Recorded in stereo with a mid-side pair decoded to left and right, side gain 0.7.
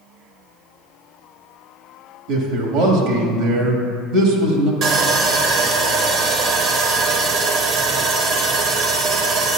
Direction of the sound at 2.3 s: 70° right.